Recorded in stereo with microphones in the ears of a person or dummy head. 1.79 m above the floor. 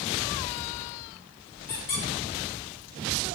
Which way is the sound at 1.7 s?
35° left (ahead or behind).